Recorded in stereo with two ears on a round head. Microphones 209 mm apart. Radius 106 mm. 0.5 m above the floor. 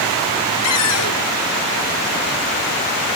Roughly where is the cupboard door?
Left.